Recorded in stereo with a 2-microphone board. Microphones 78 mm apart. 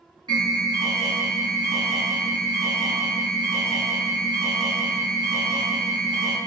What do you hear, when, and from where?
0.3 s an alarm: 60° right (ahead or behind), 1.8 m